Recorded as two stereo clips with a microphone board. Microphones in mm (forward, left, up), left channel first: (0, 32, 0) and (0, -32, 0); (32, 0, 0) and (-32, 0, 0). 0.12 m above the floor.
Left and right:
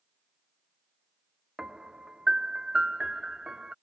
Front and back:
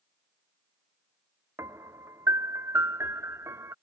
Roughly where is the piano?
Behind.